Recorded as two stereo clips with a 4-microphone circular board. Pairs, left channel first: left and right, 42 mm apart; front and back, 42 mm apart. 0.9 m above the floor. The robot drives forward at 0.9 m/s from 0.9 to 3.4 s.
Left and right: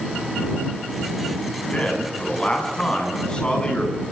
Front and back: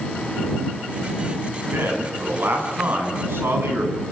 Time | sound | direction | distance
1.7 | a man speaking | 155° left | 8 m